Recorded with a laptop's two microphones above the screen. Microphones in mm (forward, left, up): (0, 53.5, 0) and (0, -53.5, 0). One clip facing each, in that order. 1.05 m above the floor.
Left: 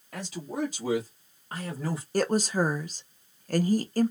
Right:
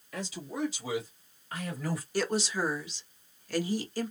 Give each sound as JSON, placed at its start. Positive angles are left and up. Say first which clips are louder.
{"t": 0.1, "sound": "a man speaking", "louder": "left 3 dB", "side_deg": 50, "distance_m": 1.9}
{"t": 2.1, "sound": "a woman speaking", "louder": "left 6 dB", "side_deg": 45, "distance_m": 0.5}